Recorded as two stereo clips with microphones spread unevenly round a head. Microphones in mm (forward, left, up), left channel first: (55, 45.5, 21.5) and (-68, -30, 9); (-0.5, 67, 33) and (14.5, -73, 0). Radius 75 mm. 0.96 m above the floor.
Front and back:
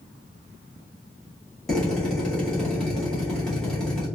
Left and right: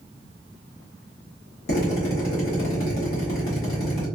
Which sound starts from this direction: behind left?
A drill, at 1.7 s.